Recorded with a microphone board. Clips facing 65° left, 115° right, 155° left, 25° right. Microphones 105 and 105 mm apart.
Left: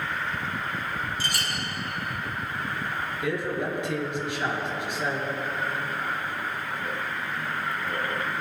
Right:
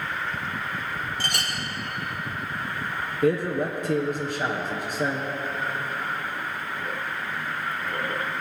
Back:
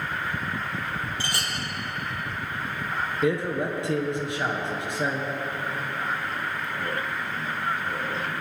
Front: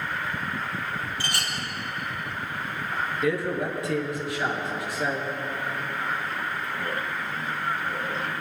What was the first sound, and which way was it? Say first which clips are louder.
A clink: right 1 dB, even; 140° right.